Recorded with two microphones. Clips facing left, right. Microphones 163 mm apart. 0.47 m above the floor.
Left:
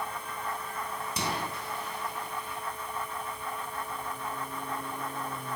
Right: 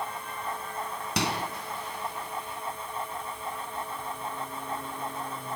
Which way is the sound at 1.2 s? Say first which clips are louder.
Right 4 dB; 70° right (ahead or behind).